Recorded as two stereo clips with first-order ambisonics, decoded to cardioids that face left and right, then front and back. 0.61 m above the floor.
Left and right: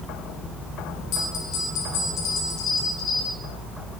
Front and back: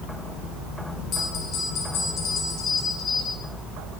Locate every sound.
1.1 s a bell: 55° left, 4 m